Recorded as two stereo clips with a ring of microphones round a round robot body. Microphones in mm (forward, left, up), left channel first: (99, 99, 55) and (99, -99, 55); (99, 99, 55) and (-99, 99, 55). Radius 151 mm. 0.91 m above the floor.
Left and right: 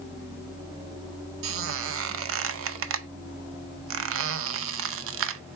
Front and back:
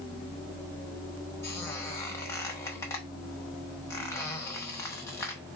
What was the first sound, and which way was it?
A squeak, 80° right.